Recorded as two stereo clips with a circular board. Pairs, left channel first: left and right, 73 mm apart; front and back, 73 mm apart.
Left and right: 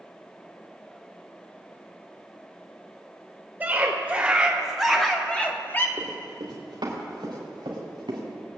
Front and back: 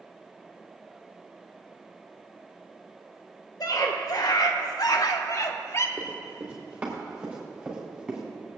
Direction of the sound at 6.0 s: 115° right.